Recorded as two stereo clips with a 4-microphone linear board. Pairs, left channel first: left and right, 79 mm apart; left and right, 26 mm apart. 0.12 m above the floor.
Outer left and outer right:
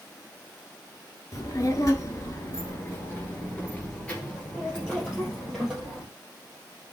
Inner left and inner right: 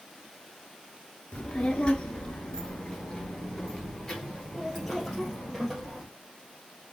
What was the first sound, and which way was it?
A child speaking, 45° left (ahead or behind).